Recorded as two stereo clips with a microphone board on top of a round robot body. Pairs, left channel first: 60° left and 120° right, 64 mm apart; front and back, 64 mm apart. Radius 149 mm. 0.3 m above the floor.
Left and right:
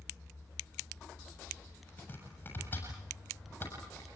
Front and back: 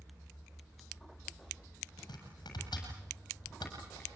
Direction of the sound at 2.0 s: 5° right.